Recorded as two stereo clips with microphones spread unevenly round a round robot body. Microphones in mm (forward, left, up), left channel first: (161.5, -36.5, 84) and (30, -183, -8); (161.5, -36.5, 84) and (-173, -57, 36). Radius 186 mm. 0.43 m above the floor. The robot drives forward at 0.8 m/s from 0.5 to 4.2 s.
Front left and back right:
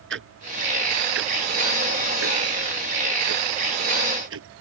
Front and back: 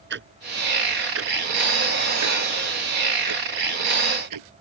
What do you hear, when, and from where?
0.1 s ticking: 120° right; by 4.5 s 145° right